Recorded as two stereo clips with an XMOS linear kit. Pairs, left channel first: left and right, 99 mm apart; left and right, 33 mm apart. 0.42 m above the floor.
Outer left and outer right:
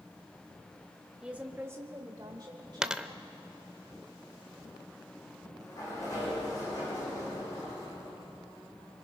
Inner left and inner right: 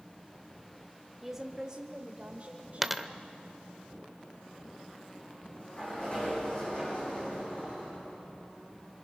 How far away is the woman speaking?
About 1.0 m.